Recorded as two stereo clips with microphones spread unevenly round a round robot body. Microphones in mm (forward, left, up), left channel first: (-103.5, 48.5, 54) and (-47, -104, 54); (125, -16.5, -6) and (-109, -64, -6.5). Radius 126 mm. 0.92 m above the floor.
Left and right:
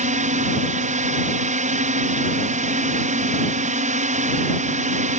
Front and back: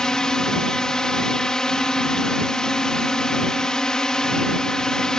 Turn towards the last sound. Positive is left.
turn(degrees=-75)